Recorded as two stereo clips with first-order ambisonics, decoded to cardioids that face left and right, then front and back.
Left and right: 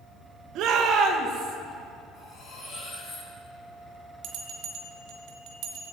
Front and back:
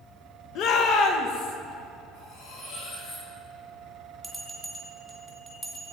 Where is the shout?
50° right, 1.3 m; by 1.6 s 30° right, 2.5 m.